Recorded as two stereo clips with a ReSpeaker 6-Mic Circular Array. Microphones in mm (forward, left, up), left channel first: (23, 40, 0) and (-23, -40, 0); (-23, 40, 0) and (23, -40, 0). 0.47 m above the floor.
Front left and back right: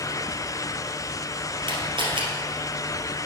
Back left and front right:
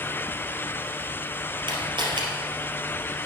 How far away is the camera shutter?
About 3 m.